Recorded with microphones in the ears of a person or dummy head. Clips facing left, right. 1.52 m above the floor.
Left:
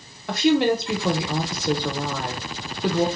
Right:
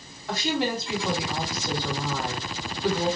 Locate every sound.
0.3 s a woman speaking: 55° left (ahead or behind), 1.2 m